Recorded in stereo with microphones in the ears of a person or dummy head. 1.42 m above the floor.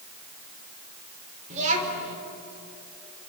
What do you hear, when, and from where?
1.5 s a child speaking: 40° right (ahead or behind), 4.5 m